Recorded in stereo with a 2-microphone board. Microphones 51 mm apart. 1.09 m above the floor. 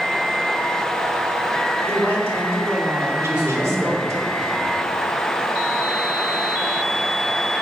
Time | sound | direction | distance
1.9 | a woman speaking | 50° right (ahead or behind) | 3.5 m
3.2 | a man speaking | 25° right (ahead or behind) | 4.5 m